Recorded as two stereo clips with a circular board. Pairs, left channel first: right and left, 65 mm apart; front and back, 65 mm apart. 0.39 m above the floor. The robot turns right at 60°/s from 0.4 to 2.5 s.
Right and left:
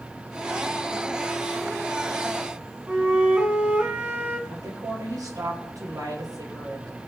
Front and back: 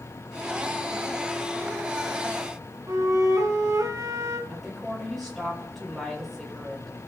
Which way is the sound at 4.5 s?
90° left.